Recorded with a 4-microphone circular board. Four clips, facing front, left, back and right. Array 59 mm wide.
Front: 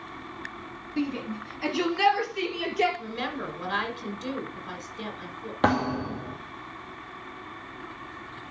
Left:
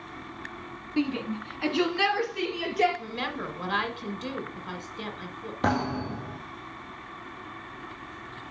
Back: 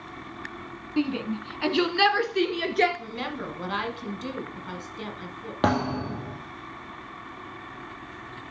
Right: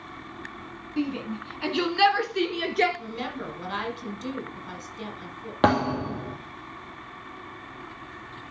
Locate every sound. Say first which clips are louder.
1.0 s a shout: left 1 dB, back 3 dB; 150° left, 1.4 m; by 2.9 s 140° right, 2 m
3.0 s a woman speaking: left 1 dB, front 1 dB; 100° left, 1.4 m
5.6 s a thud: right 5 dB, even; 95° right, 2.5 m